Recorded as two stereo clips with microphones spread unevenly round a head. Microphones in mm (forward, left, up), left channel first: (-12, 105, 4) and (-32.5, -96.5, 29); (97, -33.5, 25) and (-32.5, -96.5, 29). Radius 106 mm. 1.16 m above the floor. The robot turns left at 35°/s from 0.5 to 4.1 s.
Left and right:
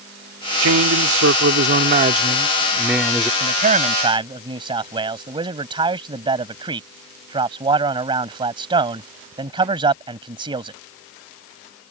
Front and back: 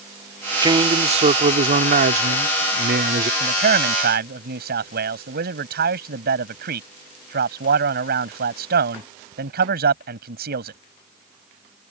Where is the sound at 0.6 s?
95° right; by 3.3 s 170° left.